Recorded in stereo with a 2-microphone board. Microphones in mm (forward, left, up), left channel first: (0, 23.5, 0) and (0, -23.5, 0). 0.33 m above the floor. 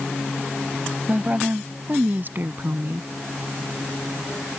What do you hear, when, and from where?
1.1 s a woman speaking: 30° right (ahead or behind); by 3.1 s 55° right (ahead or behind)